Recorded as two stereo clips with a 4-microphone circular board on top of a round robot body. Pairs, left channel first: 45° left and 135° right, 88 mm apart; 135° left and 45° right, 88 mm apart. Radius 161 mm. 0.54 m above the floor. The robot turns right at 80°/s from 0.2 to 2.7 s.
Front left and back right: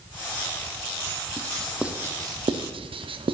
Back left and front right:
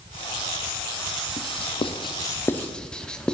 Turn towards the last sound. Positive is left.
turn(degrees=-145)